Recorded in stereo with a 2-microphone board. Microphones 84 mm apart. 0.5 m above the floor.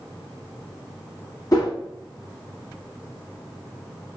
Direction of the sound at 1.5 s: 45° left (ahead or behind).